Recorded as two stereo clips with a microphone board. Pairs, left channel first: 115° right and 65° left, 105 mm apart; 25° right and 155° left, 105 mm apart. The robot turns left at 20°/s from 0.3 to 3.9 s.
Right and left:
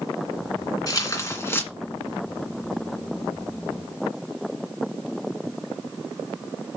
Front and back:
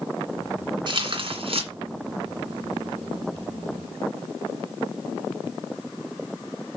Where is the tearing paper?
165° right, 2.5 m; by 1.7 s straight behind, 2.5 m.